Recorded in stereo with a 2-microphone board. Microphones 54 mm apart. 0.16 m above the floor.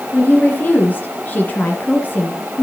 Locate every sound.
0.1 s a woman speaking: 35° left (ahead or behind), 2.5 m